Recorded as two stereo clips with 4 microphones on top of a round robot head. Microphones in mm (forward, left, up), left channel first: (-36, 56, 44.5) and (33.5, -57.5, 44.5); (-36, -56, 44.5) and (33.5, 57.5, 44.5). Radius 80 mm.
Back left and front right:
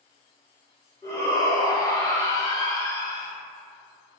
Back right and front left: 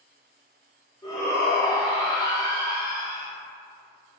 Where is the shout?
Straight behind, 1.2 m.